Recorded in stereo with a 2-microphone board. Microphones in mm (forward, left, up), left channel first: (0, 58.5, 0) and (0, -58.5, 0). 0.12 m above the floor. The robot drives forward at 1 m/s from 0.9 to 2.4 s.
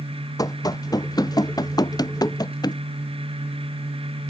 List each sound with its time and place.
0.4 s running footsteps: 30° left (ahead or behind); by 2.8 s 35° left (ahead or behind)